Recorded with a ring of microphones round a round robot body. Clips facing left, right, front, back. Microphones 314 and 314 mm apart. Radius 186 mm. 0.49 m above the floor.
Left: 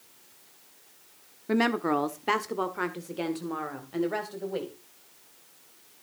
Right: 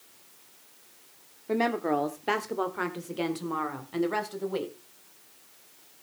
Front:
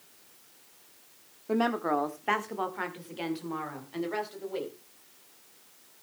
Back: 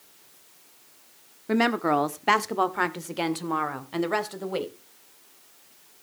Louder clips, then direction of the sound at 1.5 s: Left 2 dB, back 4 dB; 140° left.